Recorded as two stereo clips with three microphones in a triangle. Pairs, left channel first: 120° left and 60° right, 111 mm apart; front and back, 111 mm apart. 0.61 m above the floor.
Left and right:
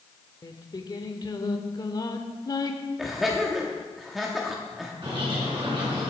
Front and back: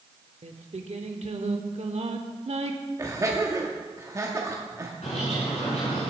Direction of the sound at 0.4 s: 170° left.